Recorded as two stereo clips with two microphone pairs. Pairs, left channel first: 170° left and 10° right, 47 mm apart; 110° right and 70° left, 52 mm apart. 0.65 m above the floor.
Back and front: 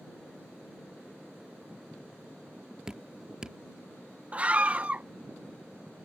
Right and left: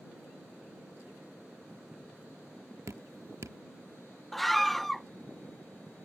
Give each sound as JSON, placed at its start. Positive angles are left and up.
{"t": 2.9, "sound": "dripping", "azimuth_deg": 65}
{"t": 4.3, "sound": "a scream", "azimuth_deg": -25}